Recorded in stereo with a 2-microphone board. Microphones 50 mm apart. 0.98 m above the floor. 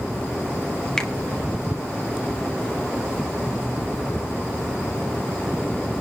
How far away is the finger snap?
About 1.3 m.